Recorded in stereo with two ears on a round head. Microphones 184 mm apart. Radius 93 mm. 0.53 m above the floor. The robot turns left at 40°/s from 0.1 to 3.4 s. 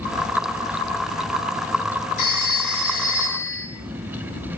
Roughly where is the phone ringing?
Behind left.